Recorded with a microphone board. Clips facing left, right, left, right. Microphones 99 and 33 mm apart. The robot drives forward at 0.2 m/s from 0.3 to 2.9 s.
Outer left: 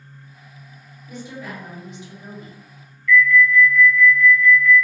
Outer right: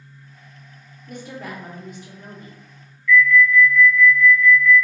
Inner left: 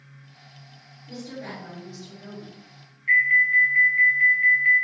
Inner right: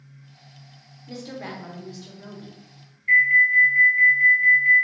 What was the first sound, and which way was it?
A woman speaking, 55° right (ahead or behind).